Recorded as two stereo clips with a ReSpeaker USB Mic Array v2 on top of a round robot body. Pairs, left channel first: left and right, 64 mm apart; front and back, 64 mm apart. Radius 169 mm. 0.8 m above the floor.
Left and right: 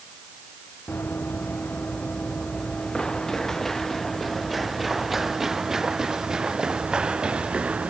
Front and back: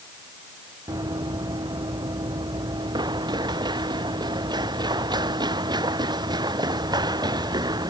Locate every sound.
0.9 s running footsteps: 155° left; by 7.9 s 165° right